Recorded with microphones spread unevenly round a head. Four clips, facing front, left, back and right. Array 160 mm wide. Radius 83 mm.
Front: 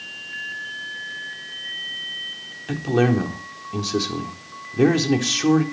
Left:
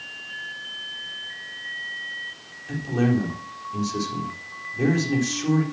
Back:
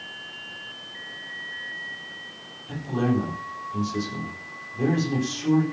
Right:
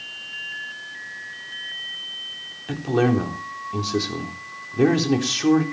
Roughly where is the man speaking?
Ahead right.